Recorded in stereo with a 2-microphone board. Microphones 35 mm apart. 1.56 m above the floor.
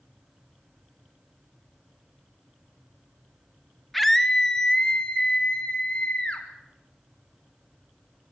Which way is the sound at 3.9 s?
Centre (ahead or behind).